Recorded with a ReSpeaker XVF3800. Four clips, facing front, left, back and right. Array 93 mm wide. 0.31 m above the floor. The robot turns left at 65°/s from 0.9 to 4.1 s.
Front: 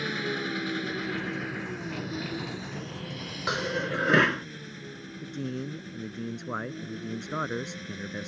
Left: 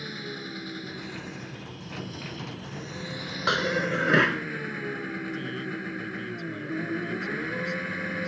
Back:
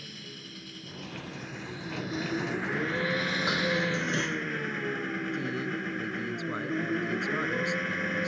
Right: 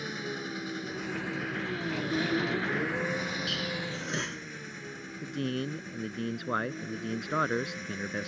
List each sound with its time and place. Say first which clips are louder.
0.0 s an engine running: right 1 dB, front 15 dB; 10° right; by 8.3 s 140° left
3.5 s dishes clattering: left 9 dB, front 2 dB; 85° left; by 4.5 s 45° left
5.2 s a man speaking: even, back 3 dB; 70° right